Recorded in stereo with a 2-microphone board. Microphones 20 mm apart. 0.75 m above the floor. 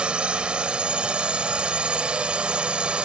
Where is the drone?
70° right (ahead or behind).